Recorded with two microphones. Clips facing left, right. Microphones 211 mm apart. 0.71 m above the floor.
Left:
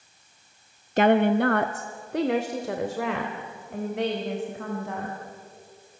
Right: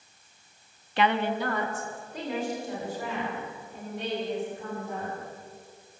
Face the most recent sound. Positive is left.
turn(degrees=80)